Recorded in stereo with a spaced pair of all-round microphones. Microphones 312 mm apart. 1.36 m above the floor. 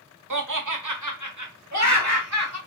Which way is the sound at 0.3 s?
70° right (ahead or behind).